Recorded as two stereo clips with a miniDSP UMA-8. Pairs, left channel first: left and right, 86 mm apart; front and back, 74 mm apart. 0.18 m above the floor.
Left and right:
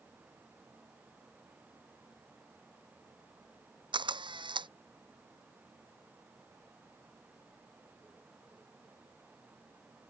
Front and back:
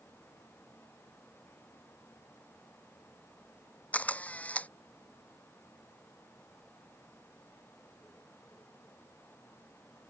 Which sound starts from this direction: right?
A camera shutter, at 3.9 s.